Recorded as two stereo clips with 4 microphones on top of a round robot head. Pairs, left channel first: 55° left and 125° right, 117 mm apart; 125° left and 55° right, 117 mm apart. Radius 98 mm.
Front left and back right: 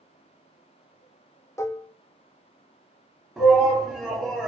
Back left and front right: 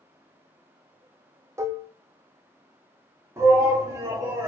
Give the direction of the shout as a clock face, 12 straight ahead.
1 o'clock.